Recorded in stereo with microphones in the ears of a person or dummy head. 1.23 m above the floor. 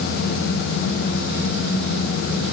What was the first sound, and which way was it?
Only background noise.